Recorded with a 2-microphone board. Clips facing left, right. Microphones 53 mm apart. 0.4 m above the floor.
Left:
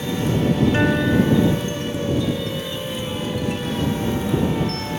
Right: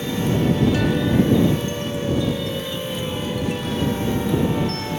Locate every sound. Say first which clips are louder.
0.7 s a guitar: left 1 dB; 35° left (ahead or behind)